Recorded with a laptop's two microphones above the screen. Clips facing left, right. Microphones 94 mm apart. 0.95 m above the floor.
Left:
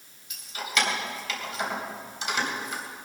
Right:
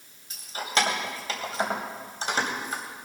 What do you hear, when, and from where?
0.3 s keys jangling: 35° right (ahead or behind), 3 m